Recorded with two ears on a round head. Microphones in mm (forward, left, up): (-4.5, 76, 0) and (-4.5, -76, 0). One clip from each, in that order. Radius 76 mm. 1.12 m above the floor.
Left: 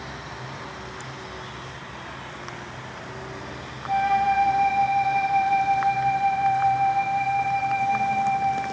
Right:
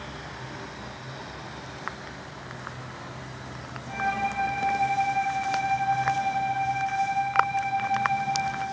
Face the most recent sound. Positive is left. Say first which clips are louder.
# left 7 dB
turn(degrees=25)  # may be behind; listen again after turning